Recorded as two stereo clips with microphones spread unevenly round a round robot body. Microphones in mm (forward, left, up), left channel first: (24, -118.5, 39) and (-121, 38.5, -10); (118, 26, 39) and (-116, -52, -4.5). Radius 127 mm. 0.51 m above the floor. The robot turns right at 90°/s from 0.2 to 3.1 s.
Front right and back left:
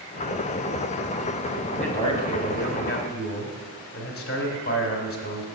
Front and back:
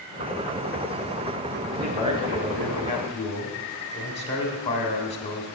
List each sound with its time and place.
1.7 s a man speaking: 165° right, 1.1 m; by 5.5 s 40° right, 1.1 m